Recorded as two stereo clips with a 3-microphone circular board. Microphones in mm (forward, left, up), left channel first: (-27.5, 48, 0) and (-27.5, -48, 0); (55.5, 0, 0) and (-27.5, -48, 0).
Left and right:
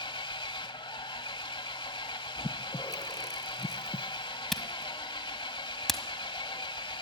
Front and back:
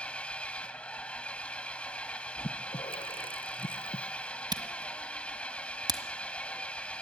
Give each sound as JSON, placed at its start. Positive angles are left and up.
{"t": 0.0, "sound": "an engine running", "azimuth_deg": 105, "distance_m": 0.9}
{"t": 2.4, "sound": "breathing", "azimuth_deg": 40, "distance_m": 0.9}
{"t": 4.5, "sound": "a camera shutter", "azimuth_deg": 175, "distance_m": 1.4}